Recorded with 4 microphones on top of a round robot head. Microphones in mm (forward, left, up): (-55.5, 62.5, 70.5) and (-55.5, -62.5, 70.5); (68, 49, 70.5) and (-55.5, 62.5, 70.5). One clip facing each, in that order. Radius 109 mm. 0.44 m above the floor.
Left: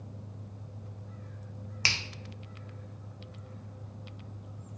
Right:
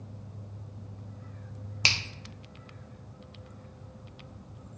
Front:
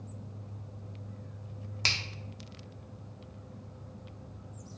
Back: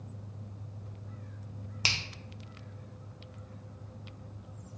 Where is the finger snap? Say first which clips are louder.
Right 2 dB, even; 125° right, 0.5 m.